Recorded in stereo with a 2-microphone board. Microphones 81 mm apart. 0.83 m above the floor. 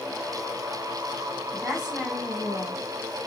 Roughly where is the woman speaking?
Centre.